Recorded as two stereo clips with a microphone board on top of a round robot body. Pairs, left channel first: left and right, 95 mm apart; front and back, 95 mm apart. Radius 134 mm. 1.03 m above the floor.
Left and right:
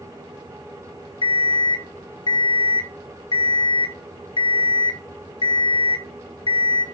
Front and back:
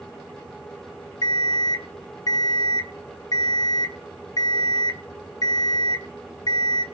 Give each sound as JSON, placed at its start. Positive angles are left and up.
{"t": 1.2, "sound": "an alarm clock", "azimuth_deg": 50, "distance_m": 0.8}